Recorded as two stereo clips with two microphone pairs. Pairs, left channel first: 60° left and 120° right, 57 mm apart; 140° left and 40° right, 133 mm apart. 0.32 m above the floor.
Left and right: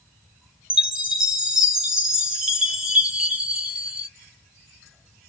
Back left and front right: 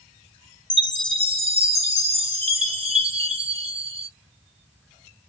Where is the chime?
50° right, 1.8 m.